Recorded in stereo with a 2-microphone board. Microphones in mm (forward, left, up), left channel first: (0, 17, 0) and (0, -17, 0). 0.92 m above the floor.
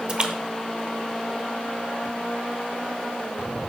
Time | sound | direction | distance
0.1 | a splash | 30° right (ahead or behind) | 0.7 m